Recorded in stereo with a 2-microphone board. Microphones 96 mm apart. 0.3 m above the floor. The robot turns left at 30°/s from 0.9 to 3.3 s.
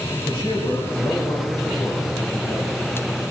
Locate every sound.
0.2 s a man speaking: 110° left, 2.5 m; by 2.8 s 55° left, 2.5 m